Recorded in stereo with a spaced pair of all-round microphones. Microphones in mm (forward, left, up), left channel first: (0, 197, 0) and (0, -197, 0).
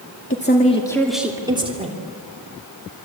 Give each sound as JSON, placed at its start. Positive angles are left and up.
{"t": 0.3, "sound": "a woman speaking", "side_deg": 30, "distance_m": 2.0}